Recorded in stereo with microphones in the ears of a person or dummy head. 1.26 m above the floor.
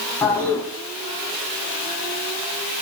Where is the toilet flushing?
10° left (ahead or behind), 4 m.